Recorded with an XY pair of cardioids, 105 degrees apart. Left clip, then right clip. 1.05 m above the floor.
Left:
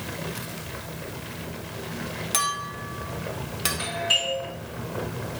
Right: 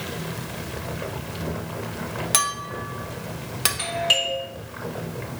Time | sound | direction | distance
2.3 | a clink | 35° right | 0.6 m
3.8 | a doorbell | 60° right | 1.6 m